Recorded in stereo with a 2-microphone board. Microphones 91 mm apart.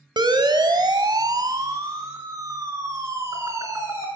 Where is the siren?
55° right (ahead or behind), 2.5 m; by 4.0 s 35° right (ahead or behind), 6 m.